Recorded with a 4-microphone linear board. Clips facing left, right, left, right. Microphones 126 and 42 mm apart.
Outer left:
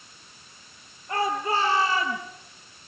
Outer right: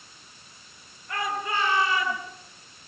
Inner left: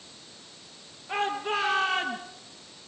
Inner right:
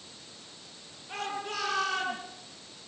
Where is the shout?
30° left (ahead or behind), 7.5 m; by 2.2 s 35° left (ahead or behind), 7.5 m.